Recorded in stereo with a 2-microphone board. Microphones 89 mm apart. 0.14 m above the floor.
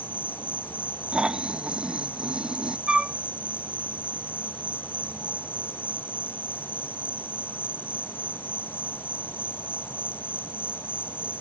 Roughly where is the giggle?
I don't hear a giggle.